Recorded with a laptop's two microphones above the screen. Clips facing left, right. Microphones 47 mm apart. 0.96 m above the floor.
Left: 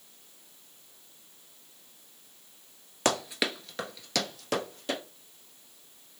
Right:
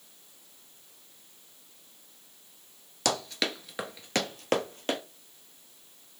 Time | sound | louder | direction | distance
3.0 | running footsteps | left 2 dB | 30° left (ahead or behind) | 1.0 m